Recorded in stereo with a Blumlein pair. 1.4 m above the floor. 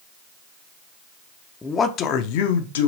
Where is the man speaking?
10° left, 0.6 m; by 2.9 s 65° left, 0.9 m.